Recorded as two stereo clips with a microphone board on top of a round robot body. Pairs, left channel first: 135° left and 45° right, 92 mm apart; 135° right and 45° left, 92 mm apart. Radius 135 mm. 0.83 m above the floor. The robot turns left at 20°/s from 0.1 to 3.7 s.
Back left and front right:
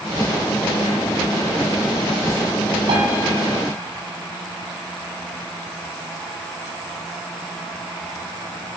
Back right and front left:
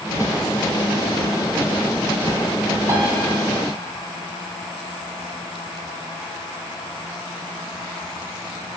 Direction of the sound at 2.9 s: 15° right.